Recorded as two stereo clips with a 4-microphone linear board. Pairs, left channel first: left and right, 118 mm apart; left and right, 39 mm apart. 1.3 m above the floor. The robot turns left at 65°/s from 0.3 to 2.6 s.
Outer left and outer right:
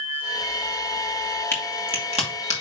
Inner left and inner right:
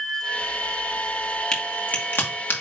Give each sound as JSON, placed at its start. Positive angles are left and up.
{"t": 1.5, "sound": "a crack", "side_deg": 20, "distance_m": 2.5}